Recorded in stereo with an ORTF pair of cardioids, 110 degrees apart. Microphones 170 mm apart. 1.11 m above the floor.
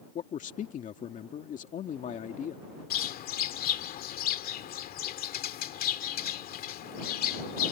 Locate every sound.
0.1 s a man speaking: 50° left
2.9 s a bird: 60° left